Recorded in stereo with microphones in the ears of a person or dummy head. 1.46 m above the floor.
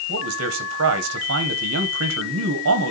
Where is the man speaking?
70° right (ahead or behind), 1.4 m.